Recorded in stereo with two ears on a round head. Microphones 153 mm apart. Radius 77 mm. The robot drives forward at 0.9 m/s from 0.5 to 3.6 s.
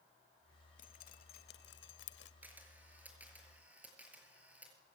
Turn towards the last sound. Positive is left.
turn(degrees=-10)  # may be behind; listen again after turning